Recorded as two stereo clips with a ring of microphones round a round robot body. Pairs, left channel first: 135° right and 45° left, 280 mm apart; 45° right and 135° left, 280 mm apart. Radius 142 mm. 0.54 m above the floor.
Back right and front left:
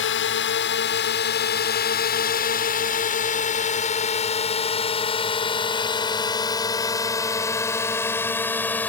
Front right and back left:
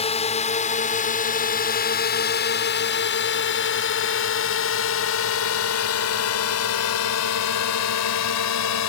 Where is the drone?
105° right; by 8.9 s 50° right.